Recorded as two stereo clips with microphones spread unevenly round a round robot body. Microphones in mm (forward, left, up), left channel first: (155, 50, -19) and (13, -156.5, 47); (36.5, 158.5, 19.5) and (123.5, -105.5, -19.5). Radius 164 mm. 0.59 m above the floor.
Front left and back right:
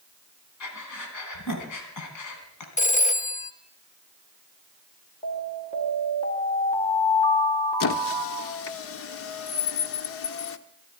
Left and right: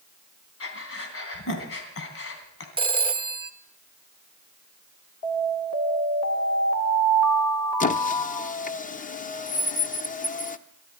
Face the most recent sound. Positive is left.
turn(degrees=40)